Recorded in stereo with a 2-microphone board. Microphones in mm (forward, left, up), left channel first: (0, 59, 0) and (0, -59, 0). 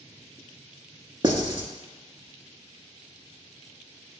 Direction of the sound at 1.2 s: 40° right (ahead or behind).